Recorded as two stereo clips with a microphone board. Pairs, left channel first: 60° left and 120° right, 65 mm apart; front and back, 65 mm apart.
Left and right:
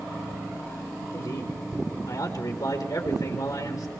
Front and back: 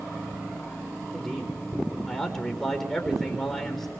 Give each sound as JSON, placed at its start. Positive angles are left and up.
{"t": 1.1, "sound": "a man speaking", "azimuth_deg": 85, "distance_m": 4.5}